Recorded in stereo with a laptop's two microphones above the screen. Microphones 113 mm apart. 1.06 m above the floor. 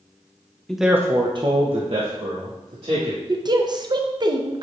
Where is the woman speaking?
40° right (ahead or behind), 0.6 m.